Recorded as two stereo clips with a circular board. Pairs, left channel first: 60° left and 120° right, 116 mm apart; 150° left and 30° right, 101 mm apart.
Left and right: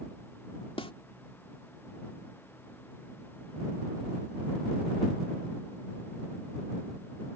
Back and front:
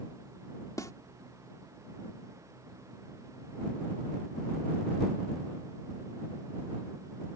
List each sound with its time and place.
0.8 s a snare drum: 95° left